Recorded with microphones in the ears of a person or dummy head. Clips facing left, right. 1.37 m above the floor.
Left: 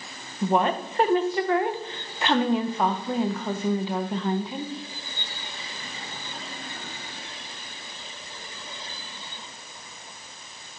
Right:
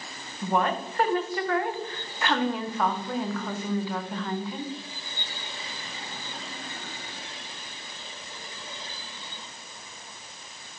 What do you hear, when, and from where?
0.4 s a woman speaking: 20° left (ahead or behind), 0.7 m